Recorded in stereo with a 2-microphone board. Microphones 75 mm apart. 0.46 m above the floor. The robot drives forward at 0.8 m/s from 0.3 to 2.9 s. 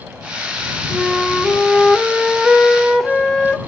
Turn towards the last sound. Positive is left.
turn(degrees=5)  # may be behind; listen again after turning